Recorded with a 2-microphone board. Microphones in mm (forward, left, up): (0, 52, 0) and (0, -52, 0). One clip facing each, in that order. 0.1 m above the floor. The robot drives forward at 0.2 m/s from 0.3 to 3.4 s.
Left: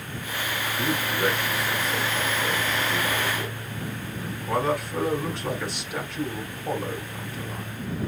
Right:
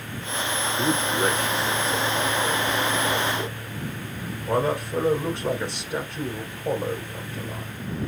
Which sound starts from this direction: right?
A man speaking, at 0.8 s.